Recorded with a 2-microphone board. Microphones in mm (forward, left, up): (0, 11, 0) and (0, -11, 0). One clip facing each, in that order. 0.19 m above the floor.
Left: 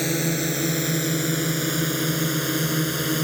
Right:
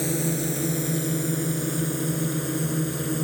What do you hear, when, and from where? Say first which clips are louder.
0.0 s a drone: left 2 dB; 40° left (ahead or behind); by 3.2 s 60° left (ahead or behind)